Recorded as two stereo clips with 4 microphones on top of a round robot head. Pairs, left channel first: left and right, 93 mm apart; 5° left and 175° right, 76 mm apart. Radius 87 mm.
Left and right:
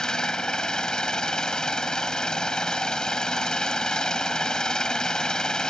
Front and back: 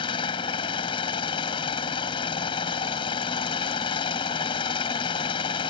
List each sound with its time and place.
0.0 s an engine running: 10° left